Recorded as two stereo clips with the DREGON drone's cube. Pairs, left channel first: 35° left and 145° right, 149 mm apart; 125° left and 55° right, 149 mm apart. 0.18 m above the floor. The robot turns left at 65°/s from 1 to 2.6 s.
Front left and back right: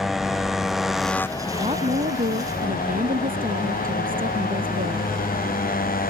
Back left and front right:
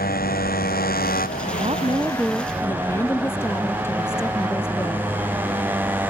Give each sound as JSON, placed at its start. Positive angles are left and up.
{"t": 0.0, "sound": "a motorcycle", "azimuth_deg": 125}
{"t": 1.5, "sound": "a woman speaking", "azimuth_deg": -85}